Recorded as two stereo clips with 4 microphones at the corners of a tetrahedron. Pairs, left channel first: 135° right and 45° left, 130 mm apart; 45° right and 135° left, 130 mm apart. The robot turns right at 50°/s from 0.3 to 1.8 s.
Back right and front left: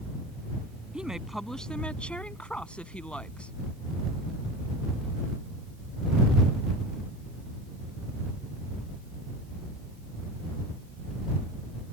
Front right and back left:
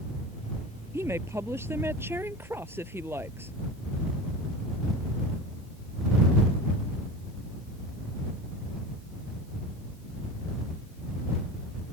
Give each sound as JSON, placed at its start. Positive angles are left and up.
{"t": 0.9, "sound": "a woman speaking", "azimuth_deg": 115}